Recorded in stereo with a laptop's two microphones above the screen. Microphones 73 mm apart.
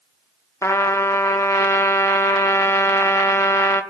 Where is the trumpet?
40° left (ahead or behind), 0.6 m.